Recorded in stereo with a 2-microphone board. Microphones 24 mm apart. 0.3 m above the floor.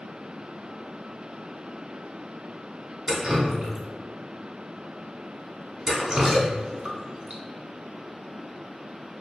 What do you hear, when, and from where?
3.1 s dripping: 30° right (ahead or behind), 0.7 m